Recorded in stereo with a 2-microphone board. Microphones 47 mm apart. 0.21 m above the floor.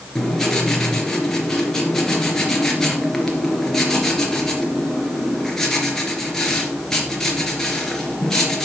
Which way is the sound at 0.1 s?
10° left (ahead or behind).